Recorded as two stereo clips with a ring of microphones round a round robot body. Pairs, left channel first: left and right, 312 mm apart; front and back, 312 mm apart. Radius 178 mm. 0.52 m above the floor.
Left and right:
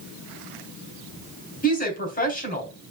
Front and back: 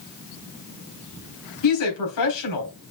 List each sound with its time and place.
1.6 s a woman speaking: 30° left, 4 m